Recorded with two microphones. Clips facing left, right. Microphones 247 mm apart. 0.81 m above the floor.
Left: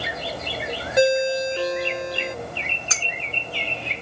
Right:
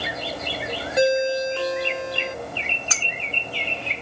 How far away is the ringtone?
About 0.6 m.